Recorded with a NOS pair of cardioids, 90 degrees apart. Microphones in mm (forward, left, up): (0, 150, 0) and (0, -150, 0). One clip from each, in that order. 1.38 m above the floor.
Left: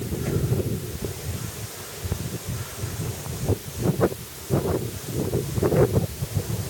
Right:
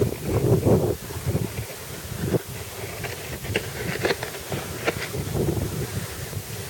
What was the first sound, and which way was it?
Only background noise.